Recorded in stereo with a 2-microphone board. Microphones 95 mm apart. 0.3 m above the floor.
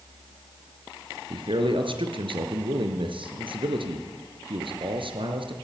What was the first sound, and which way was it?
A man speaking, 65° right (ahead or behind).